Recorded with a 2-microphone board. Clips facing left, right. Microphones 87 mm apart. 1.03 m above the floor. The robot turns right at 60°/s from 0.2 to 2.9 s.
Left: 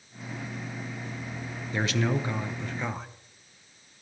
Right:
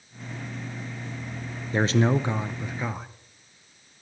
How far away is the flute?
I don't hear a flute.